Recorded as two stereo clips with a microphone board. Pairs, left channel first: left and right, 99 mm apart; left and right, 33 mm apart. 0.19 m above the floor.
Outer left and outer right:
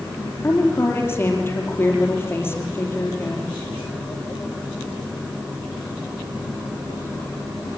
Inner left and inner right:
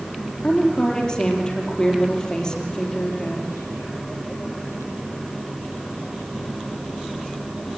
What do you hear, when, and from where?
0.4 s a woman speaking: 25° left (ahead or behind), 4.5 m